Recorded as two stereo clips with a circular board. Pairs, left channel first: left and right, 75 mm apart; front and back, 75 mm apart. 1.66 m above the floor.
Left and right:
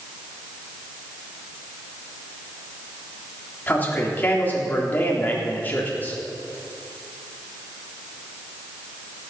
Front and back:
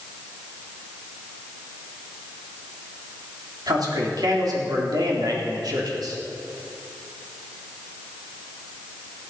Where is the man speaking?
155° left, 3.5 m.